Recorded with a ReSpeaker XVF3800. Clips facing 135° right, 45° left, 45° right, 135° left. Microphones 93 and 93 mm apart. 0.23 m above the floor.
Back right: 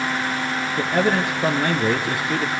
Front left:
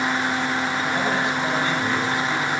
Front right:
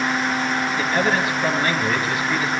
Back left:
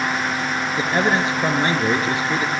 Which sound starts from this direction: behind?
A man speaking, at 0.8 s.